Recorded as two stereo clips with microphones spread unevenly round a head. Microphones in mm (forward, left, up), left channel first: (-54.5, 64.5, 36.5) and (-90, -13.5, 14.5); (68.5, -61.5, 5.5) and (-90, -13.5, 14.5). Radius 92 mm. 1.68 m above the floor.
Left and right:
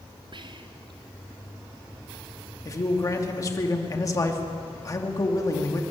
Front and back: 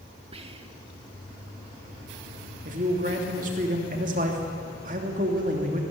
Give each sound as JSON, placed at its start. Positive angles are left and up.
{"t": 0.3, "sound": "whispering", "azimuth_deg": -140, "distance_m": 2.5}
{"t": 2.6, "sound": "a man speaking", "azimuth_deg": 110, "distance_m": 3.0}